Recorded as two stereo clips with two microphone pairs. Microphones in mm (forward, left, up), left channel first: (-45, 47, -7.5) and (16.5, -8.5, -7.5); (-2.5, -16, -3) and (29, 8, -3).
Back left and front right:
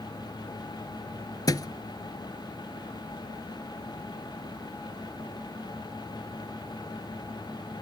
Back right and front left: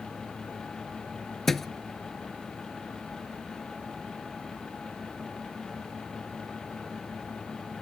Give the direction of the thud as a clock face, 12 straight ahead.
7 o'clock.